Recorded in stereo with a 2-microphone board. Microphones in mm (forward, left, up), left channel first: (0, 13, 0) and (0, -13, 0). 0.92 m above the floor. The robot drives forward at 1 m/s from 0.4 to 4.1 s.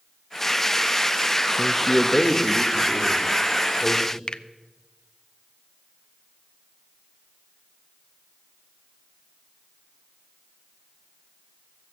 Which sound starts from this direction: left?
A finger snap, at 4.3 s.